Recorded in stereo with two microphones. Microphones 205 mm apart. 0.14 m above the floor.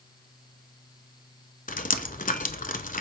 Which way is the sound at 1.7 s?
40° left (ahead or behind).